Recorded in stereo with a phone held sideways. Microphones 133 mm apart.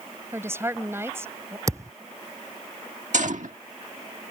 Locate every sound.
0.3 s a woman speaking: 20° right (ahead or behind)
1.7 s a thud: 25° right (ahead or behind)
3.1 s a gunshot: 70° right (ahead or behind)